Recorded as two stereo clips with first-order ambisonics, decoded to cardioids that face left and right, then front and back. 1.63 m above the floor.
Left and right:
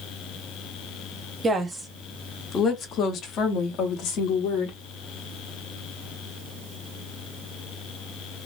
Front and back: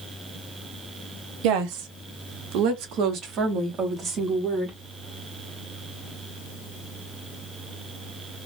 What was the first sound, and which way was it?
A woman speaking, 160° right.